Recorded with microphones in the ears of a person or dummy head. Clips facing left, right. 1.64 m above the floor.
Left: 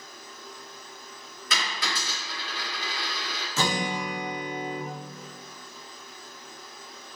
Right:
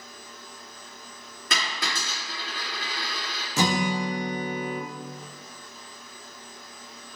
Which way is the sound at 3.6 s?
15° right (ahead or behind).